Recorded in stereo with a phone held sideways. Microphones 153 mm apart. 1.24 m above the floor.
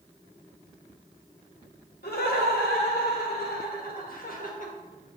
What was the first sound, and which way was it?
Laughter, 80° left.